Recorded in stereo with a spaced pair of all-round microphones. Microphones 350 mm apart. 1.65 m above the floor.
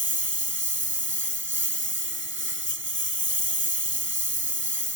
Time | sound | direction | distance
0.0 | a lawn mower | 35° right (ahead or behind) | ?